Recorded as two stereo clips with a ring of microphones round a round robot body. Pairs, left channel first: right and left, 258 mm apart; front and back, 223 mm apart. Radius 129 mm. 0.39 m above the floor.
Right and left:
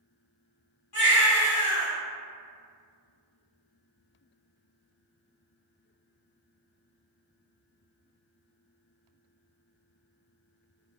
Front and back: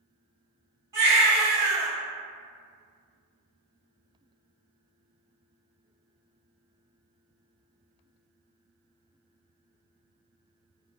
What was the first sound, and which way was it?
A baby crying, 100° right.